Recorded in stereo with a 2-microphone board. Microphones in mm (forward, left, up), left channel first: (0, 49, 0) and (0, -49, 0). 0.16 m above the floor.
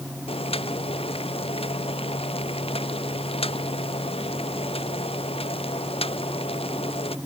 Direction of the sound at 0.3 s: 80° left.